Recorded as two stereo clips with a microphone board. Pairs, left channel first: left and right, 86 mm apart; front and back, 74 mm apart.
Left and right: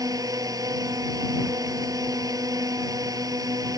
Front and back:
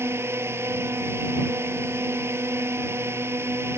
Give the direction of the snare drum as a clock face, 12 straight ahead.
No snare drum in this recording.